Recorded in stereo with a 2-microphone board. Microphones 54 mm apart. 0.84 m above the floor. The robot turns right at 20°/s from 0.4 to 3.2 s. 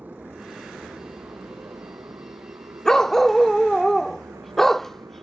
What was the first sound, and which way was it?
A motorcycle, 35° right (ahead or behind).